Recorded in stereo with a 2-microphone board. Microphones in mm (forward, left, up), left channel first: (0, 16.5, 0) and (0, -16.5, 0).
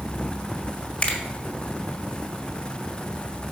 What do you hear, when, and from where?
1.0 s a finger snap: 40° left (ahead or behind), 1.5 m